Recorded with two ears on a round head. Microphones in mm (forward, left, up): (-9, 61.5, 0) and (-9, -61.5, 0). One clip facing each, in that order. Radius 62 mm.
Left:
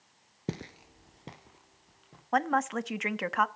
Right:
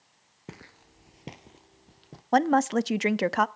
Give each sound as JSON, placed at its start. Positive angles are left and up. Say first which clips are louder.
{"t": 0.5, "sound": "footsteps", "louder": "left 9 dB", "side_deg": 35, "distance_m": 0.8}
{"t": 2.3, "sound": "a woman speaking", "louder": "right 6 dB", "side_deg": -35, "distance_m": 0.6}